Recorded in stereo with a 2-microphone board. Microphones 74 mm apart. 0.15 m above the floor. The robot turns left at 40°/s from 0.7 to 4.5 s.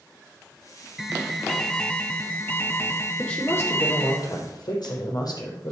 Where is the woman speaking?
165° left, 5 m; by 5.7 s 115° left, 5 m.